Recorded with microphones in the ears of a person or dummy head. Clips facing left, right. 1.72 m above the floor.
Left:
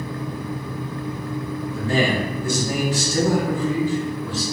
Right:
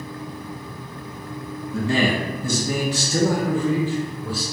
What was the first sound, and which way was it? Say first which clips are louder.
A man speaking: right 1 dB; 65° right (ahead or behind).